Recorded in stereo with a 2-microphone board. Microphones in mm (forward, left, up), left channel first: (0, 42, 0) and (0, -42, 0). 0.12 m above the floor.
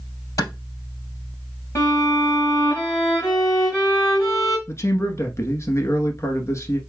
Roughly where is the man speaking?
Left.